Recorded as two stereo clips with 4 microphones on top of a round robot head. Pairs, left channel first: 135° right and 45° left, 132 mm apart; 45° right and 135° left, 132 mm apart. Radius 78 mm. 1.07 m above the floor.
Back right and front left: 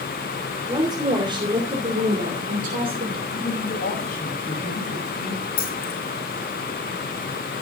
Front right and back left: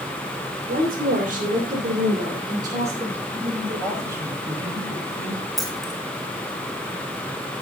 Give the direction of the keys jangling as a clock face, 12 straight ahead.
5 o'clock.